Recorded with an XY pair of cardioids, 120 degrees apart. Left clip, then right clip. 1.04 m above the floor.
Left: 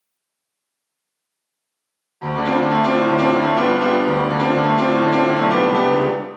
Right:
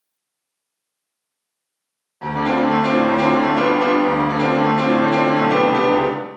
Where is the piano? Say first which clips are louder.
Even; 25° right, 1.4 m.